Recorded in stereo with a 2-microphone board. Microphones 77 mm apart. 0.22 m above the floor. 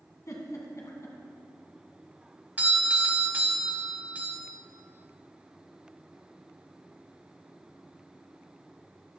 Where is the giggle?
40° left (ahead or behind), 1.9 m.